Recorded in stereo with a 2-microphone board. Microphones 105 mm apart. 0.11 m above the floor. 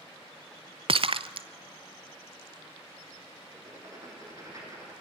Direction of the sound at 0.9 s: 60° right (ahead or behind).